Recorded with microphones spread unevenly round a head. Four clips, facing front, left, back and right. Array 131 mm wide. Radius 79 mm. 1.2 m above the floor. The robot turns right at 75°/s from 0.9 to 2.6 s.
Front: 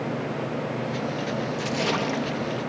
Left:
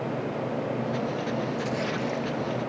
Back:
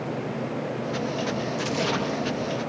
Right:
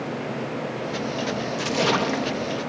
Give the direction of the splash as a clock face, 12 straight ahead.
4 o'clock.